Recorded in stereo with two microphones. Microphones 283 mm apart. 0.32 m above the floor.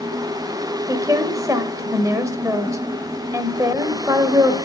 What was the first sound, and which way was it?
A woman speaking, 10° right (ahead or behind).